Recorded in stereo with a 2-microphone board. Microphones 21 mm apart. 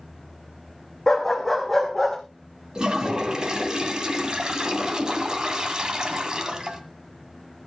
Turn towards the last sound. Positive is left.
turn(degrees=-45)  # may be behind; listen again after turning